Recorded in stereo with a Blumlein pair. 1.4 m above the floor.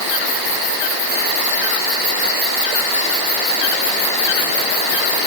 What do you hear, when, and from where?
Only background noise.